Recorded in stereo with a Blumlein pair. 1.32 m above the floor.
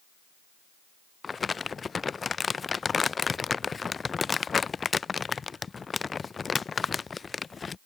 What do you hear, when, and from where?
1.2 s crumpling: 15° left